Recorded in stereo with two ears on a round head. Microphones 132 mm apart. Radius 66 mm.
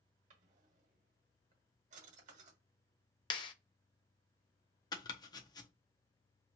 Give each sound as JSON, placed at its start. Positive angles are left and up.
{"t": 0.3, "sound": "a drawer", "side_deg": -50, "distance_m": 1.1}
{"t": 3.3, "sound": "a clap", "side_deg": 35, "distance_m": 0.7}
{"t": 4.9, "sound": "chopping", "side_deg": 25, "distance_m": 0.6}